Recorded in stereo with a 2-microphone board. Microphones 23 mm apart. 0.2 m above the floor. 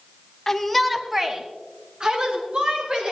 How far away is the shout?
About 1.1 m.